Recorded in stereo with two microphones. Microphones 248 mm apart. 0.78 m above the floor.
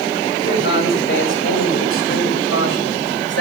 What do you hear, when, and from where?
0.4 s a man speaking: 45° left (ahead or behind), 4.5 m; by 3.4 s 80° left, 3.5 m